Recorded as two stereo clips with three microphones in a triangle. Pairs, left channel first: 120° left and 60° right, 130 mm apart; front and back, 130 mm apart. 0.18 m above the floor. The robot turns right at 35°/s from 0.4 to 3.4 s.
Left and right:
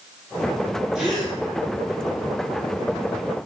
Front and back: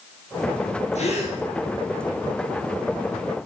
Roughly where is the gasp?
Ahead left.